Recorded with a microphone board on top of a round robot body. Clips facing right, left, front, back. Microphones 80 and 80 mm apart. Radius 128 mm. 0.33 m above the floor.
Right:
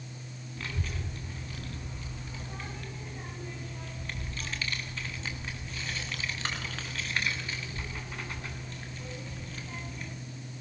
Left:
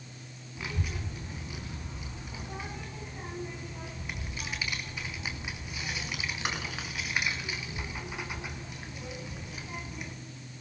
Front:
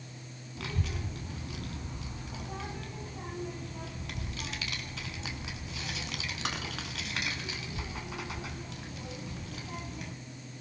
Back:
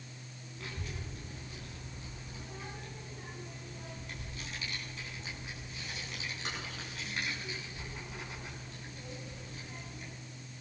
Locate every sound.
0.6 s a child speaking: 10° left, 3.5 m